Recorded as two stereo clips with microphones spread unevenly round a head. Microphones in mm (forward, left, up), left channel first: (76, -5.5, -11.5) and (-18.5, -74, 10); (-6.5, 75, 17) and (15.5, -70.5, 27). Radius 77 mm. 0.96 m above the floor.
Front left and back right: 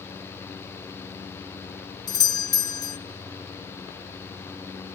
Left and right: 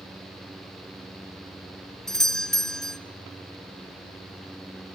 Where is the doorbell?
15° left, 0.9 m.